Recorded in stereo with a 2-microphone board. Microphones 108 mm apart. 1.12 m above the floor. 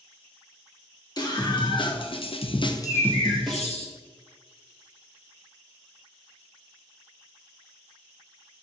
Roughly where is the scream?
Left.